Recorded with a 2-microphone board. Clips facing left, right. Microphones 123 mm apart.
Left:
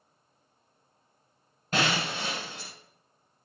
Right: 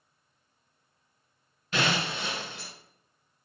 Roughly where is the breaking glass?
Left.